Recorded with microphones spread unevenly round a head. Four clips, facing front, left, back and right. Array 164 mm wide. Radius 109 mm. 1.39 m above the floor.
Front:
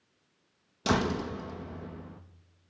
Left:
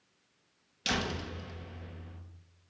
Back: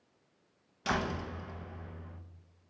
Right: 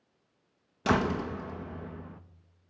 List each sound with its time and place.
0.8 s a door slam: 50° right, 1.0 m